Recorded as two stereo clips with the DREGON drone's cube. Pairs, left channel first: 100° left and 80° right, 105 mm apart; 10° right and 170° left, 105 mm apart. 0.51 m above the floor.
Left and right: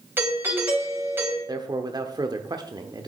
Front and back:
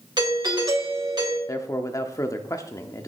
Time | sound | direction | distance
0.2 | a doorbell | 145° right | 3.5 m
1.5 | a man speaking | 60° right | 0.8 m